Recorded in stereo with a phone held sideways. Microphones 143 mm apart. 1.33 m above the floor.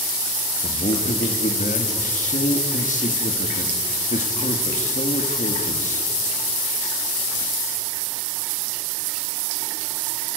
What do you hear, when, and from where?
0.6 s a man speaking: 60° left (ahead or behind), 2 m